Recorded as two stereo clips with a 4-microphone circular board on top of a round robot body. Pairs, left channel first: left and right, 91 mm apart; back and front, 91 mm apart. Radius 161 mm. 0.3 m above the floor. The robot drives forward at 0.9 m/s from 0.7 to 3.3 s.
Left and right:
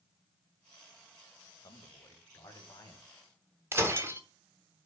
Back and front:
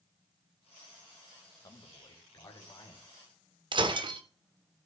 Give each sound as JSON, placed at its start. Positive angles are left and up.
{"t": 1.6, "sound": "a man speaking", "azimuth_deg": 135, "distance_m": 2.0}
{"t": 3.7, "sound": "breaking glass", "azimuth_deg": -30, "distance_m": 1.4}